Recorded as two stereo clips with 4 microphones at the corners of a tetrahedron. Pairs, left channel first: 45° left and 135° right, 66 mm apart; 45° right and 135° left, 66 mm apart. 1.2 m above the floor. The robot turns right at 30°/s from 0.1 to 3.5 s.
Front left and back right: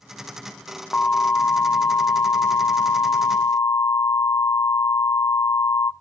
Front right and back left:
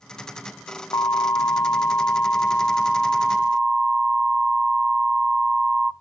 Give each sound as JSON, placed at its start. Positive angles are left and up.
{"t": 0.9, "sound": "an alarm", "azimuth_deg": -25, "distance_m": 0.6}